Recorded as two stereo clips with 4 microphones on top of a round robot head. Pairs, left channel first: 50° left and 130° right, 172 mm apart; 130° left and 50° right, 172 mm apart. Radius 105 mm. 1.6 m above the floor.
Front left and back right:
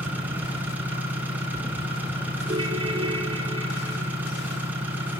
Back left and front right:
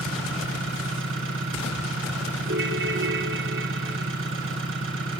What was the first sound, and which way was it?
An engine running, 50° right.